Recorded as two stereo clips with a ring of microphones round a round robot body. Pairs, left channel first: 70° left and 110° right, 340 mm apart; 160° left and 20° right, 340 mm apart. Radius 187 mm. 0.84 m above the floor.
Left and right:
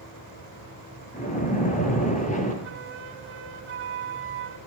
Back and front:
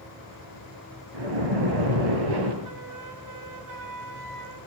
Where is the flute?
55° right, 4.5 m.